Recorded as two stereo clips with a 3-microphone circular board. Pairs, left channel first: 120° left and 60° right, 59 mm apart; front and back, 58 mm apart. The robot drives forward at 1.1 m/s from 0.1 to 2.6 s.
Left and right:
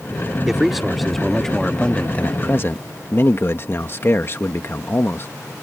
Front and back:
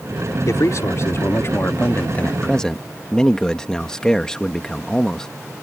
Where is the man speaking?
25° left; by 5.3 s 75° left.